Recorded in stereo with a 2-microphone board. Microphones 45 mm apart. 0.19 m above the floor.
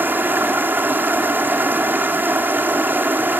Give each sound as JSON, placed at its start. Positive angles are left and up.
{"t": 0.0, "sound": "running water", "side_deg": -50, "distance_m": 1.9}